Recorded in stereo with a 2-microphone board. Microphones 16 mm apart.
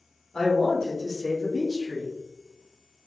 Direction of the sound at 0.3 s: 45° left (ahead or behind).